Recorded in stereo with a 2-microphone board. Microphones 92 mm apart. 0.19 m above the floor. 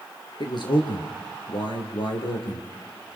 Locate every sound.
0.4 s a man speaking: 55° left (ahead or behind), 4 m; by 2.7 s 65° left (ahead or behind), 4.5 m